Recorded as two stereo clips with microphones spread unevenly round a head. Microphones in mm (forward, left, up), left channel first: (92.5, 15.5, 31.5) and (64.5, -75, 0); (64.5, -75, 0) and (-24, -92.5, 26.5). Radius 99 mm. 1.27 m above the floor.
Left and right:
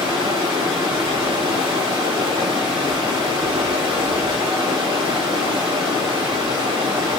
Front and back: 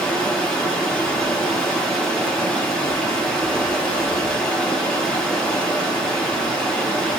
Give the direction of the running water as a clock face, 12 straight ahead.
2 o'clock.